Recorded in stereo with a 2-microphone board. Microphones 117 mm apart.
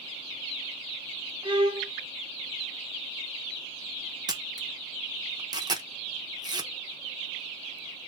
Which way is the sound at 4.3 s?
35° right (ahead or behind).